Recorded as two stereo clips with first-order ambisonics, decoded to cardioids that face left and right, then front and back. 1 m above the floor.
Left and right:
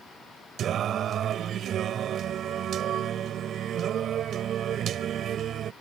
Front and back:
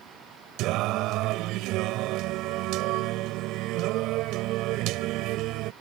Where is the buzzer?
I don't hear a buzzer.